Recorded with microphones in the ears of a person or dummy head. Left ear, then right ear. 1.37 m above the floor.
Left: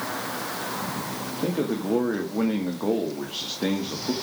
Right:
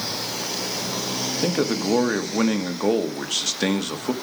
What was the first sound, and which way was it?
A man speaking, 70° right (ahead or behind).